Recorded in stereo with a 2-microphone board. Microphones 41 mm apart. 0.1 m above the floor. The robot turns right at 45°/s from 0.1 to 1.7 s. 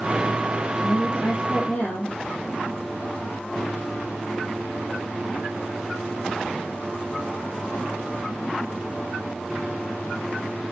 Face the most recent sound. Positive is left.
turn(degrees=135)